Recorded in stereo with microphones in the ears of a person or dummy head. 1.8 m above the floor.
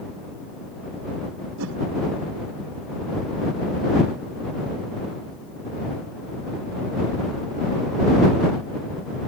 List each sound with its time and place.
1.6 s a whoosh: 80° right